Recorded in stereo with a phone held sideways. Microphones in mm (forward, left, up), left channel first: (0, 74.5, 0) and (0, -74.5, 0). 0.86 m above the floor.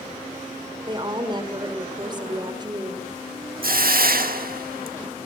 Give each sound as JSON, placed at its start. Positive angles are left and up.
{"t": 0.9, "sound": "a woman speaking", "side_deg": -30, "distance_m": 3.0}
{"t": 3.6, "sound": "a hiss", "side_deg": -80, "distance_m": 1.2}